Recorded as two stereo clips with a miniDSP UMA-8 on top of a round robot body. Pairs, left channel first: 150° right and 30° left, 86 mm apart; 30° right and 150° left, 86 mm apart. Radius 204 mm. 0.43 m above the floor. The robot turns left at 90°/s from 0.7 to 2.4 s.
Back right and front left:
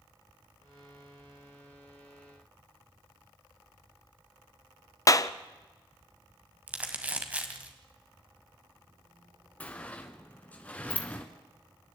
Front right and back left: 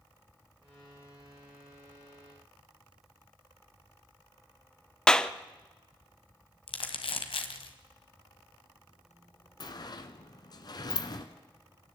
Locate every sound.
5.1 s a clap: 110° right, 1.1 m
6.7 s crumpling: 45° right, 2.0 m
9.6 s a sliding door: 75° right, 1.1 m